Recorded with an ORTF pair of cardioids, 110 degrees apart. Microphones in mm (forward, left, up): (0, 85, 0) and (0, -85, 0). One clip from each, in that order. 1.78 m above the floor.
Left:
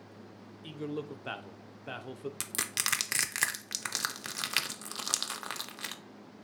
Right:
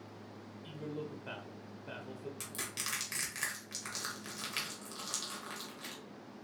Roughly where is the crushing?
Ahead left.